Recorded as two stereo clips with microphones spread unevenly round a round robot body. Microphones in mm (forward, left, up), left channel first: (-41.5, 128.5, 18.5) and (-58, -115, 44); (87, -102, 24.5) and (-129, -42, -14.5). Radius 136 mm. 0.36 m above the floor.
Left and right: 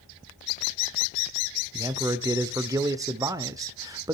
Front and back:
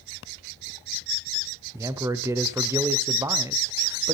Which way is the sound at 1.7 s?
165° right.